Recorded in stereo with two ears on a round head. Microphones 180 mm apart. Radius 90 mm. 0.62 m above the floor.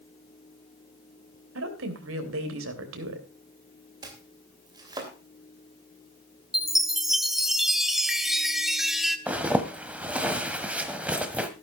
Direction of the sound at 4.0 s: 20° right (ahead or behind).